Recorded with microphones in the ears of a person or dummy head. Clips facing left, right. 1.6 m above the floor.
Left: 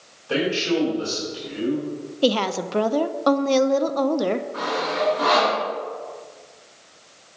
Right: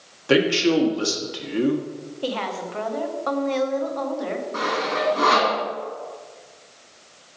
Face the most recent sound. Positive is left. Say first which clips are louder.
# even
turn(degrees=-65)  # may be behind; listen again after turning